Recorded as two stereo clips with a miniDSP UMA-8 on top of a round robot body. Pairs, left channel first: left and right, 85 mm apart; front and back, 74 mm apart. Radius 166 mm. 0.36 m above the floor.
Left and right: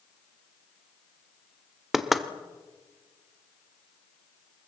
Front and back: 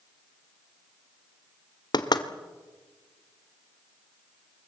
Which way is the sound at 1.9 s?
5° right.